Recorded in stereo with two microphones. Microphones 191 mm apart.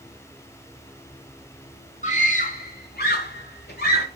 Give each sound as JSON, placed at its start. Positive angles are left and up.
{"t": 2.0, "sound": "a scream", "side_deg": 40, "distance_m": 1.9}